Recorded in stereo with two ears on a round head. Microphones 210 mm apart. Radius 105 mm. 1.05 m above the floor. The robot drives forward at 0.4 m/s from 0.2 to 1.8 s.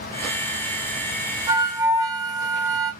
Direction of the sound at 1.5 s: 15° right (ahead or behind).